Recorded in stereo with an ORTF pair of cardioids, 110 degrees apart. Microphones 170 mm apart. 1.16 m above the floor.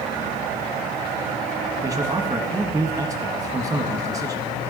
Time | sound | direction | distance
1.8 | a man speaking | 20° right | 1.4 m